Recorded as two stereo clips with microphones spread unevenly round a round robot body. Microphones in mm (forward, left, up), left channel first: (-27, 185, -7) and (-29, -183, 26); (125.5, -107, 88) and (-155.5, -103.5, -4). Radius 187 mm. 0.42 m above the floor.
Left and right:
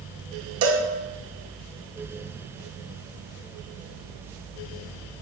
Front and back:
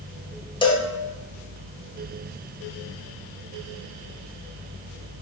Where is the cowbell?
95° right, 0.8 m.